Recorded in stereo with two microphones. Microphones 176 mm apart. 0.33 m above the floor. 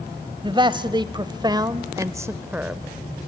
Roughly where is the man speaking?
Right.